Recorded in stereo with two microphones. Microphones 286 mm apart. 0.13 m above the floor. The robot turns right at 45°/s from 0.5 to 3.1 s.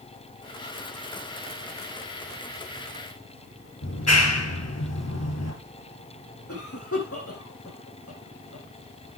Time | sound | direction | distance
3.8 | a clap | 60° left (ahead or behind) | 2.5 m
6.5 | a cough | 55° left (ahead or behind) | 5 m